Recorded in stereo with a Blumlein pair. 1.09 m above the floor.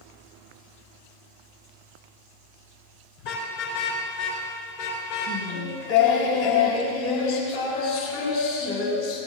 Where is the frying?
I don't hear frying.